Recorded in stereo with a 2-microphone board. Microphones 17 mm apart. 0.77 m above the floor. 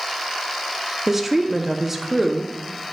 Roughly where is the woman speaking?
Centre.